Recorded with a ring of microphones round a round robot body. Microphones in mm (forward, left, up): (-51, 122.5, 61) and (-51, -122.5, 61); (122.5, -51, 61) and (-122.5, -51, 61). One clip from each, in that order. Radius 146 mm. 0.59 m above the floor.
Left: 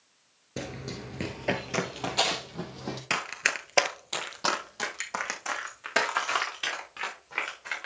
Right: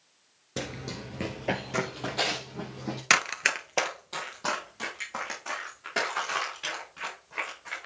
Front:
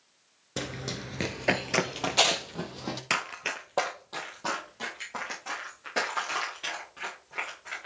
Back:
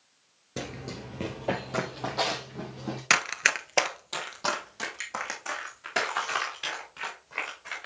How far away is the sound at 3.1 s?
About 0.7 m.